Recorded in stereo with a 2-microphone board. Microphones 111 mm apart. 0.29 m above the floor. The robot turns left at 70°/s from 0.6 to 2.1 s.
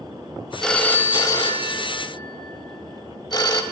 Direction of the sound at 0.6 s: 5° left (ahead or behind).